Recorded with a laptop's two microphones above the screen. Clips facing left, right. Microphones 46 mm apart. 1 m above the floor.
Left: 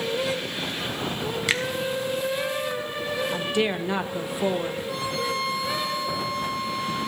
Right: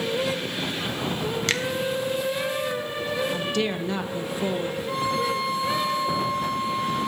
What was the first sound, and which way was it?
A finger snap, 10° left (ahead or behind).